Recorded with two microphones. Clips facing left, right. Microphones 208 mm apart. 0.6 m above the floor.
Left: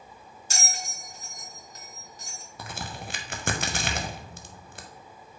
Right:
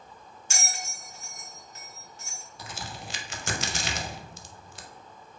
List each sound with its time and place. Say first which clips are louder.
0.5 s a bell: left 1 dB; 35° left (ahead or behind), 1.3 m
2.6 s a crack: left 3 dB; 55° left (ahead or behind), 0.6 m